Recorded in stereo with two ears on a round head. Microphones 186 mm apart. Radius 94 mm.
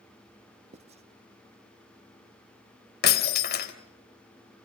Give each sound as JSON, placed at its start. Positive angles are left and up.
{"t": 0.7, "sound": "writing", "side_deg": -30, "distance_m": 1.1}
{"t": 3.0, "sound": "breaking glass", "side_deg": 50, "distance_m": 1.9}